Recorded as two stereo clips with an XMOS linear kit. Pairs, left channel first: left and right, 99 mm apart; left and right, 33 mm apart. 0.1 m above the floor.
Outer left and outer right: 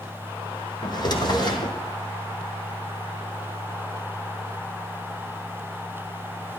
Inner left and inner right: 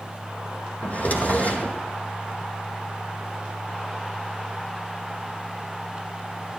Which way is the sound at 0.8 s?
45° left (ahead or behind).